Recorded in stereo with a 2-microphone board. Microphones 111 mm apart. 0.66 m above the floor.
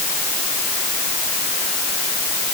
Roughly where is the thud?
I don't hear a thud.